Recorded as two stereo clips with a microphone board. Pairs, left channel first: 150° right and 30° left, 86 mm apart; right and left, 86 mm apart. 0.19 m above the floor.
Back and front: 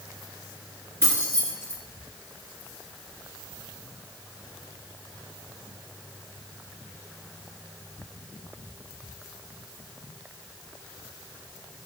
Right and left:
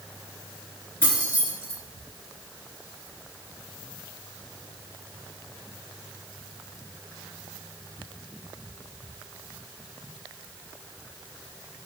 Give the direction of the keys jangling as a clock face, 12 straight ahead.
1 o'clock.